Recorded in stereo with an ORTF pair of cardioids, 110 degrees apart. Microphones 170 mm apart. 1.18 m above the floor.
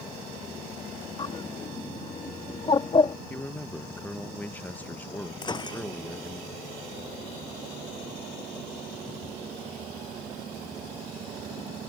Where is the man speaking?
10° left.